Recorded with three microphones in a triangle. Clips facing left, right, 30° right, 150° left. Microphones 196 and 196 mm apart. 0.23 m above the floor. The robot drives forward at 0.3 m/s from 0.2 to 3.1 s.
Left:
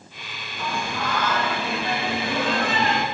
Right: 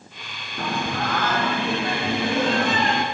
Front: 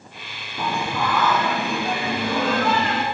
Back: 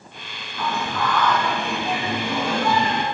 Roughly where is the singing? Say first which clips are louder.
Right 3 dB, front 1 dB; right.